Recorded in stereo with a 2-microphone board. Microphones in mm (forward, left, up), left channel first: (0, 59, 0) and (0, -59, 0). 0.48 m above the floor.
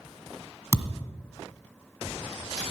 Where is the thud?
25° left (ahead or behind), 1.3 m.